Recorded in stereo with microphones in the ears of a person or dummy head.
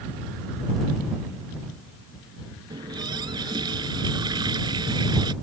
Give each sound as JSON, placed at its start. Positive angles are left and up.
{"t": 2.7, "sound": "a running tap", "side_deg": -25}